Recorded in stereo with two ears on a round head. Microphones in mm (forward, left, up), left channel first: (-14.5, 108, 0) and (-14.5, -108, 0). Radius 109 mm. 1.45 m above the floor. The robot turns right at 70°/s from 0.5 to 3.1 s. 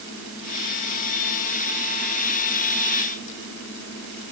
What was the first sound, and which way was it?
Only background noise.